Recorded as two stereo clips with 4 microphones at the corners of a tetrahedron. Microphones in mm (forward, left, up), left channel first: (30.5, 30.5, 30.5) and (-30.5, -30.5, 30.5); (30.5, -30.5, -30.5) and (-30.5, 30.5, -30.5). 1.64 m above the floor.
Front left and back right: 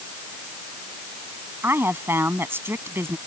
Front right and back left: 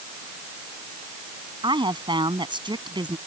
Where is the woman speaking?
160° left.